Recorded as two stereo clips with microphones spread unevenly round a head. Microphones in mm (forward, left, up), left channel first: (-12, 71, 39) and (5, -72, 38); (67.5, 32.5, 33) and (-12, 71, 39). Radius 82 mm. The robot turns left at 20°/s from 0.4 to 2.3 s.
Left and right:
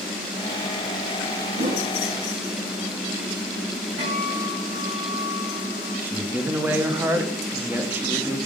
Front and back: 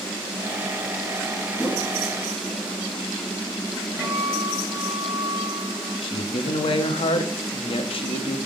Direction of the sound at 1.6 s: 120° right.